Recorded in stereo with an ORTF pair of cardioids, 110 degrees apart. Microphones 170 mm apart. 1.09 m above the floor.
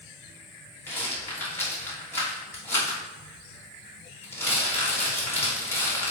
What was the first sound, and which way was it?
A rattle, 15° left.